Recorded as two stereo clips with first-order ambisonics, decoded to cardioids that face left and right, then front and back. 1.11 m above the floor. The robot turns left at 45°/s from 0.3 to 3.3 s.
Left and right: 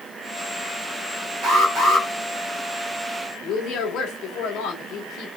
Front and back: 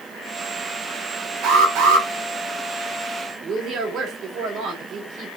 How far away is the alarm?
About 4 m.